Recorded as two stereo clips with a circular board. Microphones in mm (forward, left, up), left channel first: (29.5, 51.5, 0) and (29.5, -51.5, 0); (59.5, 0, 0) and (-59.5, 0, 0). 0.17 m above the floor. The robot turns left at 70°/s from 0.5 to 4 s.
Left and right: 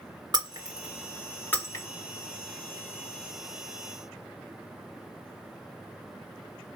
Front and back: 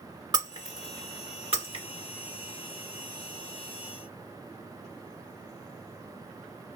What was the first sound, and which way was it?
Breaking glass, 130° right.